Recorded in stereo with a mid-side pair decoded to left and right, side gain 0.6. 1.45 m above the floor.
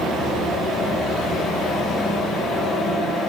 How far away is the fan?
About 1.8 m.